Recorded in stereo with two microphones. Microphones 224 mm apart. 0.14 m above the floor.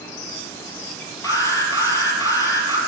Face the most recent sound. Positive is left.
turn(degrees=15)  # may be behind; listen again after turning